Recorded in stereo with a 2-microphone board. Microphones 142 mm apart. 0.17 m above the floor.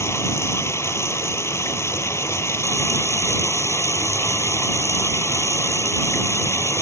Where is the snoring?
No snoring in this recording.